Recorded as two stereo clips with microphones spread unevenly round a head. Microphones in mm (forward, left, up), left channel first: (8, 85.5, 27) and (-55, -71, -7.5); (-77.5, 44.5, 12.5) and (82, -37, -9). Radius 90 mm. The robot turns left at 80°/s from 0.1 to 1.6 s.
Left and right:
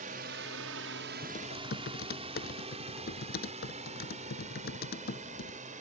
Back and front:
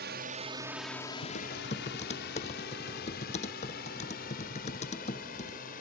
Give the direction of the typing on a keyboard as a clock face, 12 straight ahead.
8 o'clock.